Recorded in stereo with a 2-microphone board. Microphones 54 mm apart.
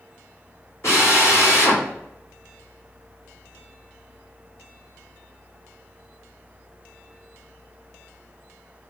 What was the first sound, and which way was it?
A drill, 60° left (ahead or behind).